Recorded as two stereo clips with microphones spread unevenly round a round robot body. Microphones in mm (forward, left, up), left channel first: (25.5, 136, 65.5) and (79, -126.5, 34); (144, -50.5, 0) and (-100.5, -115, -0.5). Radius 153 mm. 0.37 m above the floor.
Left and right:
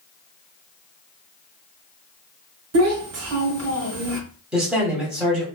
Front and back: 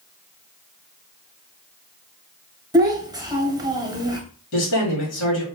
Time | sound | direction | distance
2.7 | a child speaking | 90° right | 1.3 m
4.5 | a man speaking | 5° left | 1.9 m